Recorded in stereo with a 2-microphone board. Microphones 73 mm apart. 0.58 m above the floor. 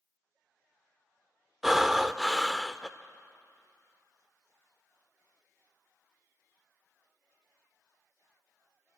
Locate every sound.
1.6 s breathing: 5° right (ahead or behind), 0.5 m